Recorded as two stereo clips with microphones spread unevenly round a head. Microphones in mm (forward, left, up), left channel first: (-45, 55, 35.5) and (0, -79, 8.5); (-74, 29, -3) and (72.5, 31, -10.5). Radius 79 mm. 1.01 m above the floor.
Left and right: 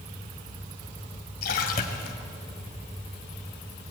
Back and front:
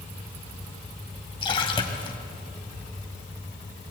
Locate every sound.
1.4 s a splash: 125° left, 2.5 m